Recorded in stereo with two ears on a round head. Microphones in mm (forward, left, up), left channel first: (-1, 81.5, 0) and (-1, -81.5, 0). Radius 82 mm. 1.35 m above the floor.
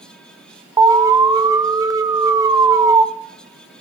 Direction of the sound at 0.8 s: 20° right (ahead or behind).